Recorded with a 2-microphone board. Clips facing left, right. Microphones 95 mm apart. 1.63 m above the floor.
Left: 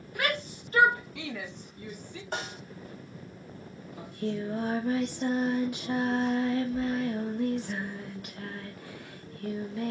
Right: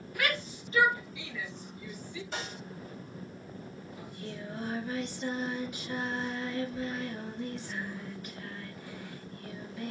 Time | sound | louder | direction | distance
0.1 | a shout | left 2 dB | 30° left (ahead or behind) | 1.0 m
2.3 | a snare drum | left 5 dB | 50° left (ahead or behind) | 2 m
4.0 | singing | left 11 dB | 70° left (ahead or behind) | 1.3 m